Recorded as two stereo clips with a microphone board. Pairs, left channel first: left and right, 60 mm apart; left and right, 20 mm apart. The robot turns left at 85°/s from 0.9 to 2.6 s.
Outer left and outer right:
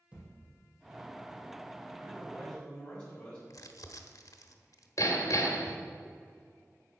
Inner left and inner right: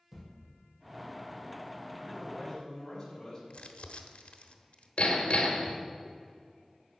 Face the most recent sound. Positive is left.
turn(degrees=60)  # may be behind; listen again after turning